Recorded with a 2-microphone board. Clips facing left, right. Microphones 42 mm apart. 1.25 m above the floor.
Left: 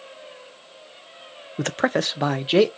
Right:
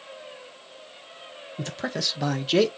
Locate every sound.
1.6 s a man speaking: 65° left (ahead or behind), 0.5 m; by 2.7 s 20° left (ahead or behind), 1.0 m